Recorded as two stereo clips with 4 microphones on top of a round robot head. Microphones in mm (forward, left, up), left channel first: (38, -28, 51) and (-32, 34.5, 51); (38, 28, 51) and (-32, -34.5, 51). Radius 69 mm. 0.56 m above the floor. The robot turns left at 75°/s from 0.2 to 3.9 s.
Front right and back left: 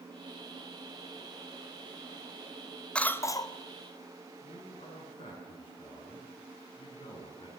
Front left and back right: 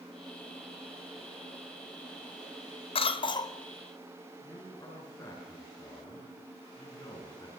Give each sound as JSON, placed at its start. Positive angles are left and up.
{"t": 3.0, "sound": "a cough", "azimuth_deg": 35, "distance_m": 2.0}
{"t": 4.4, "sound": "a man speaking", "azimuth_deg": -15, "distance_m": 10.0}